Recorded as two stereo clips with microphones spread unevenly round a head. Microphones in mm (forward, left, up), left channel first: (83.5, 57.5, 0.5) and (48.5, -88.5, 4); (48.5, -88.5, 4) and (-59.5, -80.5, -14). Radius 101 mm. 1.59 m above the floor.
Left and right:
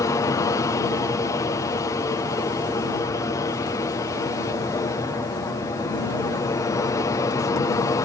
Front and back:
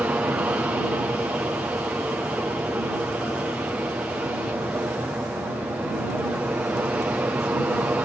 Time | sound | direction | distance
0.0 | an aircraft | 115° left | ?